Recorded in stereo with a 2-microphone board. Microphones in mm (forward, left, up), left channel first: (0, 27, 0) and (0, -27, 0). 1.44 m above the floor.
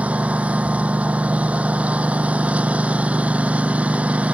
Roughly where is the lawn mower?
Right.